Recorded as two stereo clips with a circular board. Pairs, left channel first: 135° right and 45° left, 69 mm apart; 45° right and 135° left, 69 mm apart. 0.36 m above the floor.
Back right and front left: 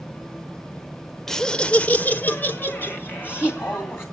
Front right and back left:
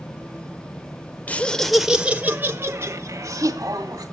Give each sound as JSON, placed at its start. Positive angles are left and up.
{"t": 1.3, "sound": "laughter", "azimuth_deg": -60, "distance_m": 1.0}